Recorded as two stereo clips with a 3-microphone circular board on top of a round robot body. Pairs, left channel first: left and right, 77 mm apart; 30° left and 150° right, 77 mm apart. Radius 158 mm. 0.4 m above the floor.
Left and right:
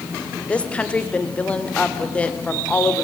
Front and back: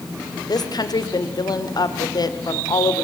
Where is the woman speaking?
15° left, 2 m.